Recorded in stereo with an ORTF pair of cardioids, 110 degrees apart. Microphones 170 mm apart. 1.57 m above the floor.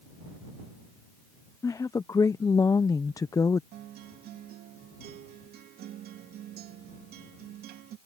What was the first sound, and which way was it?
A woman speaking, 20° left.